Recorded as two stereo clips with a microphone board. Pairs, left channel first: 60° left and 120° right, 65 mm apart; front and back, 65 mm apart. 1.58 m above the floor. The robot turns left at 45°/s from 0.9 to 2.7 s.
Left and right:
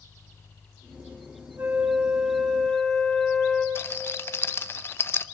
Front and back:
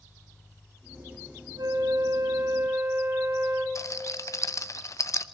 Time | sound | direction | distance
1.6 | a flute | 175° right | 3.5 m
3.8 | a rattle | 15° left | 0.9 m